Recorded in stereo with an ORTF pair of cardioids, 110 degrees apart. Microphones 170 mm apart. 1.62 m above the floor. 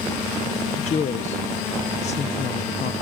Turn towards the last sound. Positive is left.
turn(degrees=40)